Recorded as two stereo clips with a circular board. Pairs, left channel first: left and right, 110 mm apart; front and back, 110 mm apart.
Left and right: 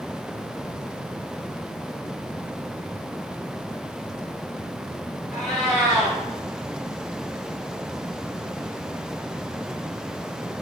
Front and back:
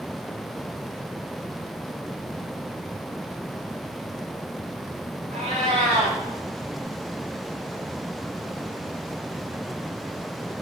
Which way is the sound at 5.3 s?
175° left.